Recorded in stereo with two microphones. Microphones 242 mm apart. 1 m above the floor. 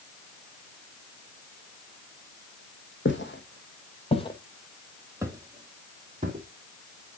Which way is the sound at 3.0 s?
55° left (ahead or behind).